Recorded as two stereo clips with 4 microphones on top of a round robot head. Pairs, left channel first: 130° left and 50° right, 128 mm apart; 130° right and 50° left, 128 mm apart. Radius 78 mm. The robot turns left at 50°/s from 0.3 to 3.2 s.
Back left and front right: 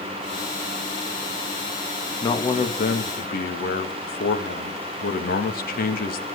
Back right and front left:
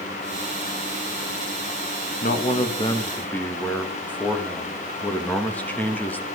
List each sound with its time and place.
2.2 s a man speaking: 160° right, 2 m; by 6.3 s 150° left, 2 m